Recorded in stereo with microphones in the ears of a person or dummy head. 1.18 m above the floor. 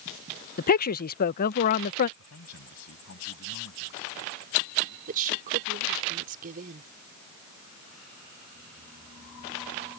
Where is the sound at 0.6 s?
45° left (ahead or behind).